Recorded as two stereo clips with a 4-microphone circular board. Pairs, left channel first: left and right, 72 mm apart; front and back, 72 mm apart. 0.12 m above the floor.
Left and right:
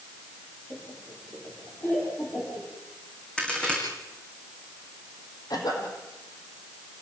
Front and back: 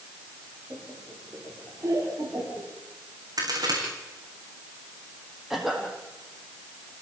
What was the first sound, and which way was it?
Laughter, 125° left.